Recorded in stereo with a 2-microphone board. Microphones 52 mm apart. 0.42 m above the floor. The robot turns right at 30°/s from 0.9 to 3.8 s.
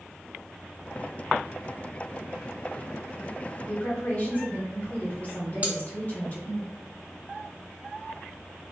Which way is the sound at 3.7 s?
30° left (ahead or behind).